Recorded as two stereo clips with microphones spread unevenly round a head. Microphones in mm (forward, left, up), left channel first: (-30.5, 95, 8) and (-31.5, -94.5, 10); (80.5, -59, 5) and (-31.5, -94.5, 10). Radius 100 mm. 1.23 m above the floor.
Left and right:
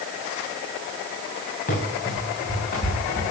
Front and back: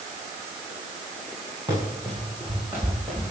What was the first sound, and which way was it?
Running footsteps, 130° left.